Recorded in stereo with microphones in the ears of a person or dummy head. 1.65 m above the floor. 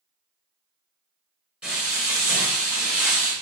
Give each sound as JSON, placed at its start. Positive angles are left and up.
{"t": 1.6, "sound": "frying", "side_deg": -10, "distance_m": 1.3}